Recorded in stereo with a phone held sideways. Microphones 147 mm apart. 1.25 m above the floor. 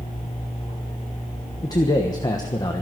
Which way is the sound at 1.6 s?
25° left (ahead or behind).